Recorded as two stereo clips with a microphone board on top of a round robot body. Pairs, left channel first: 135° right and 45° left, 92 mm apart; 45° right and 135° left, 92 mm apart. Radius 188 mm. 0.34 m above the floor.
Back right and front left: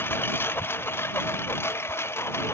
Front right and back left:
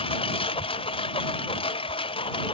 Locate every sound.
0.0 s a lawn mower: 65° right; by 2.5 s 70° right